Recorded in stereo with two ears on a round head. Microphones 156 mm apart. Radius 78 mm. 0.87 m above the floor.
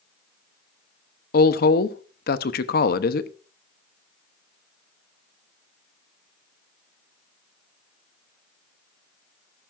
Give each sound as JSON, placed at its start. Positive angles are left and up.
{"t": 1.3, "sound": "a woman speaking", "side_deg": 60, "distance_m": 0.9}